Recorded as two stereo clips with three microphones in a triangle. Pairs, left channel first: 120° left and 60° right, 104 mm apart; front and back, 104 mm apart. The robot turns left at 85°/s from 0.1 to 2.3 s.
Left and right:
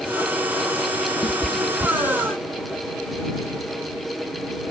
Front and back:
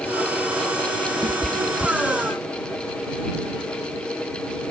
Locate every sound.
1.2 s a cat meowing: 150° left; by 2.4 s 60° left